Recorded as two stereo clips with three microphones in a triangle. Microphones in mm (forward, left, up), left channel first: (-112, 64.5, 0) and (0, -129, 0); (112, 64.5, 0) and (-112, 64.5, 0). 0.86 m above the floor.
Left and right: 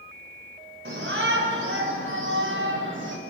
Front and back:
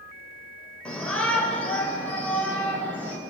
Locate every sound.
0.8 s a shout: 85° right, 4 m; by 3.2 s 80° right, 5.5 m